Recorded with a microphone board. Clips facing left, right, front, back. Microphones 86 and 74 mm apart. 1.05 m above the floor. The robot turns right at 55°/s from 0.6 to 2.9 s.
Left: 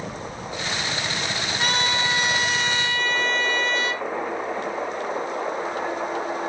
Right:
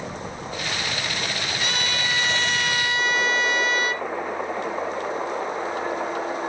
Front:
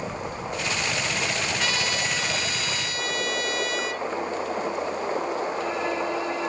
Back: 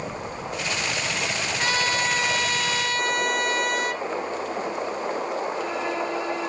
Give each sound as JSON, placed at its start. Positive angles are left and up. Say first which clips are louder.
{"t": 1.6, "sound": "a trumpet", "louder": "left 6 dB, back 3 dB", "azimuth_deg": 125, "distance_m": 1.4}